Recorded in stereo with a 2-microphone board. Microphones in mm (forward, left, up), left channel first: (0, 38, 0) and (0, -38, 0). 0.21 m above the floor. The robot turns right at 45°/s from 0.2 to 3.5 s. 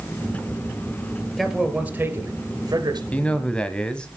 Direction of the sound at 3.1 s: 20° left (ahead or behind).